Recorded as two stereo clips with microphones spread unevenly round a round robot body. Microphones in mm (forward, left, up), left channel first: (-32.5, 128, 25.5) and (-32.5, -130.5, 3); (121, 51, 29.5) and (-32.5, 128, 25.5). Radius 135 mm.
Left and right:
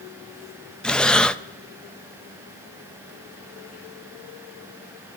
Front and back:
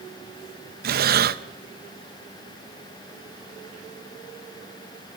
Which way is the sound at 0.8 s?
Straight behind.